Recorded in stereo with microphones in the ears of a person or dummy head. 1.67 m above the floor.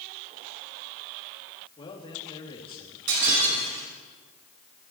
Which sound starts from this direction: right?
Breaking glass, at 3.1 s.